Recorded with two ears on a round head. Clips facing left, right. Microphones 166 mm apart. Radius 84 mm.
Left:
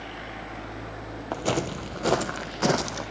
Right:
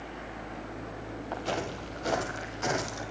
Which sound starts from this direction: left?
Footsteps, at 1.3 s.